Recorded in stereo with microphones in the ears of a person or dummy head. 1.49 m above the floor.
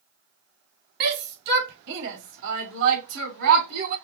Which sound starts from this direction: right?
A shout, at 1.0 s.